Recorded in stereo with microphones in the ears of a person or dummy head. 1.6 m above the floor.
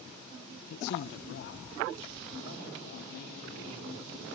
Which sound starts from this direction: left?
A man speaking, at 0.7 s.